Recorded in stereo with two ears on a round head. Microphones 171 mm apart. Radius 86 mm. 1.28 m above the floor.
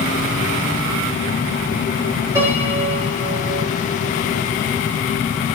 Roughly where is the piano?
Centre.